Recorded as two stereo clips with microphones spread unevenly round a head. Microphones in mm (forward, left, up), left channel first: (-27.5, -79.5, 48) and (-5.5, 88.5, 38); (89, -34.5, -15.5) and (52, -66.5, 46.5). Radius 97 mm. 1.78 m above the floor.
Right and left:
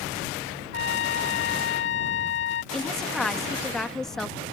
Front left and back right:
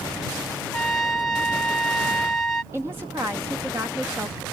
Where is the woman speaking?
175° left.